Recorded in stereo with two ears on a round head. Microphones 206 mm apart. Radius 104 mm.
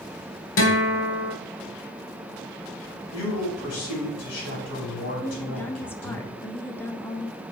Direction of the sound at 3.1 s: 65° left (ahead or behind).